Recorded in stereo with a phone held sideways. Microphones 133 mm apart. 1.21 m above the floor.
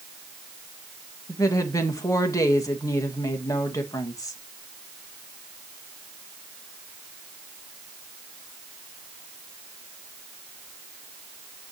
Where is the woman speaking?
25° left (ahead or behind), 1.8 m.